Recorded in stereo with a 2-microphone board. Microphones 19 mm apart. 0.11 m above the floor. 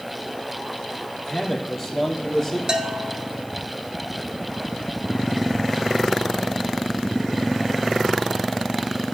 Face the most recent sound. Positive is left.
turn(degrees=-40)  # may be behind; listen again after turning